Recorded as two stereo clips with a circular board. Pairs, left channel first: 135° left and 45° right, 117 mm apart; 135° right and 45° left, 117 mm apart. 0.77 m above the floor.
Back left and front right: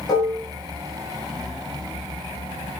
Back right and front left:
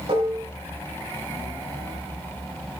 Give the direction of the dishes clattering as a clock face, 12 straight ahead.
9 o'clock.